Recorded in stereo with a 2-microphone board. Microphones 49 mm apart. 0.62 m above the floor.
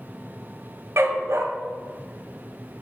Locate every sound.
1.0 s a dog barking: 70° right (ahead or behind), 0.8 m